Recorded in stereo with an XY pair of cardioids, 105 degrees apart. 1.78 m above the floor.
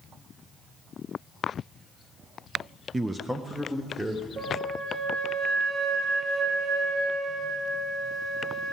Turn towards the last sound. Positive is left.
turn(degrees=-65)